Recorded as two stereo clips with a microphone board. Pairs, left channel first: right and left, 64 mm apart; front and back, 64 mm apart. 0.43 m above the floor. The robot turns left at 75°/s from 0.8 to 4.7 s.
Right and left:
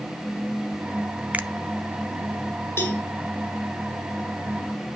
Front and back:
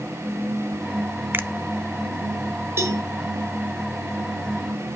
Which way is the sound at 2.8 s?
135° right.